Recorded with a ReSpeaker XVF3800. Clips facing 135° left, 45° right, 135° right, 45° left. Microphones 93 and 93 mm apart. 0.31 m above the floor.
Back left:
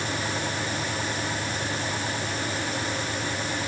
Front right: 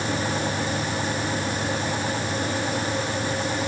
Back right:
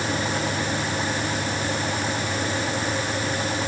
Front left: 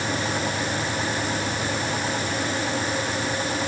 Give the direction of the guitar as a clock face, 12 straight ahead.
No guitar in this recording.